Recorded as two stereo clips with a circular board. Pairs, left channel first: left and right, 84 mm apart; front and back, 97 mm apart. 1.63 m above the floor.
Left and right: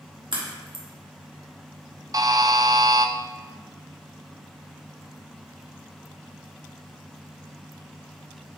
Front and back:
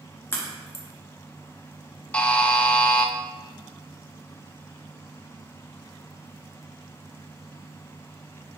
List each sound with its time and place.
0.3 s a crack: 65° right, 1.3 m
2.1 s a buzzer: 75° right, 0.5 m